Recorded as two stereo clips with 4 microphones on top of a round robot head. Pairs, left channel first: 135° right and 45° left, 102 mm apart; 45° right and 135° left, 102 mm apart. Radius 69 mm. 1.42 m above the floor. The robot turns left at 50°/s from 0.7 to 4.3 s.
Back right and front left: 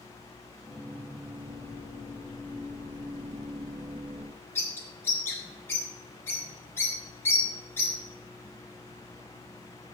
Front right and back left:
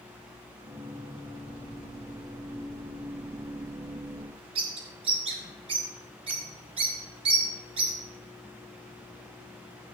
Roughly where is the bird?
Behind.